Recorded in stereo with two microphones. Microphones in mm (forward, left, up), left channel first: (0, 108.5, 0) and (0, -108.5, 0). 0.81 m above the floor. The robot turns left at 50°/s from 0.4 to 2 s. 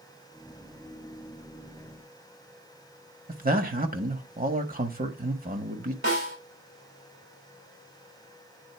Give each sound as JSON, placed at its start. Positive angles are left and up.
{"t": 3.3, "sound": "a man speaking", "side_deg": -40, "distance_m": 1.3}
{"t": 6.0, "sound": "a snare drum", "side_deg": -80, "distance_m": 5.5}